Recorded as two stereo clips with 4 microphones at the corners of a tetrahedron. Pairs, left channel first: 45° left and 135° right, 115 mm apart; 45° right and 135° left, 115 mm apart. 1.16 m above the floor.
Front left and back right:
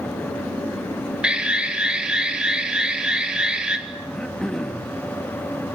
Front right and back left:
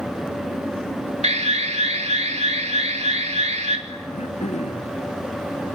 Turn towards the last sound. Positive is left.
turn(degrees=-40)